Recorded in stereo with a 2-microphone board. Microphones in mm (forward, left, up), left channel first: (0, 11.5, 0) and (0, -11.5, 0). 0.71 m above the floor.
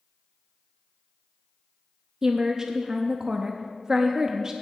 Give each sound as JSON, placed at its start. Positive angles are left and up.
{"t": 2.2, "sound": "a woman speaking", "side_deg": -30, "distance_m": 0.5}